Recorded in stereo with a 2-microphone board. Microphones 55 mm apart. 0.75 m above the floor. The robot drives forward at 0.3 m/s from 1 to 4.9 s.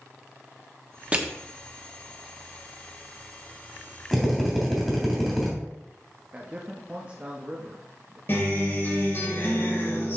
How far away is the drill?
About 3 m.